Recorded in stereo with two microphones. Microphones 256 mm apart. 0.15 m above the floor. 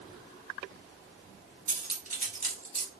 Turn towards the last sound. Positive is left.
turn(degrees=-30)  # may be behind; listen again after turning